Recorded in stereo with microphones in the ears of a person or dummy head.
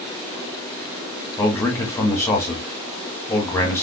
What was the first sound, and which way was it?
A man speaking, 10° left (ahead or behind).